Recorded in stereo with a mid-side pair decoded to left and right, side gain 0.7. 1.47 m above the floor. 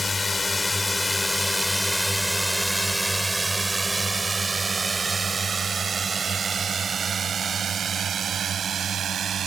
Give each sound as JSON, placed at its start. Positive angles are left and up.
{"t": 0.0, "sound": "a drone", "azimuth_deg": 20}